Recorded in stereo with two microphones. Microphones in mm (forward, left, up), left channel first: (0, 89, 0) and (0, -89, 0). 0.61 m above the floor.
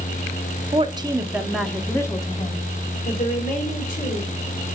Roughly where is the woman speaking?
Right.